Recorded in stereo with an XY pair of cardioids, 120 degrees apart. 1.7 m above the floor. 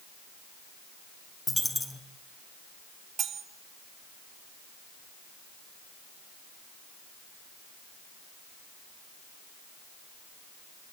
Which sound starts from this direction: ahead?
A dropped coin, at 1.5 s.